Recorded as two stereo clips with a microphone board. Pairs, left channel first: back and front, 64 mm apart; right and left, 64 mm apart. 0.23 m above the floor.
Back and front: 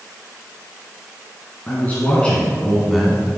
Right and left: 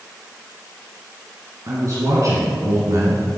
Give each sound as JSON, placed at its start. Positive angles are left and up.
{"t": 1.7, "sound": "a man speaking", "azimuth_deg": 120, "distance_m": 2.5}